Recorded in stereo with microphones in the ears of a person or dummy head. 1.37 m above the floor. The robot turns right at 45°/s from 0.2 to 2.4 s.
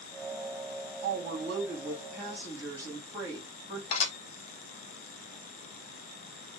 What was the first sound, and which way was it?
A woman speaking, 50° right.